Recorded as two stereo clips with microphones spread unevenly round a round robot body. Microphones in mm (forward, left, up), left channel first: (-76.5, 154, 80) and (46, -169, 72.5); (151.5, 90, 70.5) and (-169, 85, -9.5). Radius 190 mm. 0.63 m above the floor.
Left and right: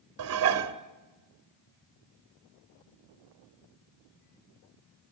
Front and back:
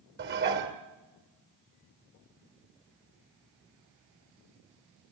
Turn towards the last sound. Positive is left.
turn(degrees=-120)